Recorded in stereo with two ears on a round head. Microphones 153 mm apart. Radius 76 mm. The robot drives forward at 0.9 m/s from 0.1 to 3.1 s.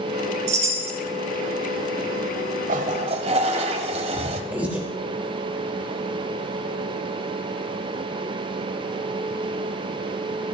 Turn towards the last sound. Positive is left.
turn(degrees=-10)  # may be behind; listen again after turning